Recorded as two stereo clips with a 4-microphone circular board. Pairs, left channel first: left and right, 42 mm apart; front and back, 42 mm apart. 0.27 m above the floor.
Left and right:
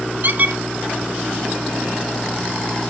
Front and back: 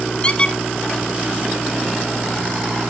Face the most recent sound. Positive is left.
turn(degrees=-60)